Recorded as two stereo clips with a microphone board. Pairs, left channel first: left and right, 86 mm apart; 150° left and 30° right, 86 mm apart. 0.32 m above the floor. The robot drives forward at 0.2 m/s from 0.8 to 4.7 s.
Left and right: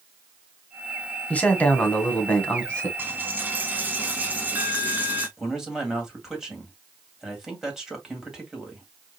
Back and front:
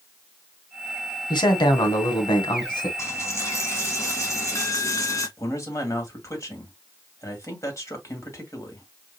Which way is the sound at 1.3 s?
160° left.